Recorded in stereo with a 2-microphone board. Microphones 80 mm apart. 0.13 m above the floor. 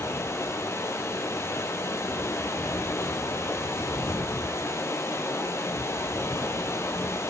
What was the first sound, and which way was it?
Running water, 35° left (ahead or behind).